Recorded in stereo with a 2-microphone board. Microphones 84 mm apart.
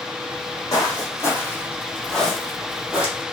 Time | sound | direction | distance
0.3 | footsteps | 50° left (ahead or behind) | 3 m